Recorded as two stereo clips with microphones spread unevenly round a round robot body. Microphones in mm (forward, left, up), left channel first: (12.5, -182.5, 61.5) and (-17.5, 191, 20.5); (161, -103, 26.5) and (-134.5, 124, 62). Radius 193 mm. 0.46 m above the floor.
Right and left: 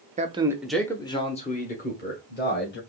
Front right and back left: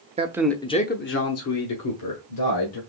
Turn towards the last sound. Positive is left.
turn(degrees=-25)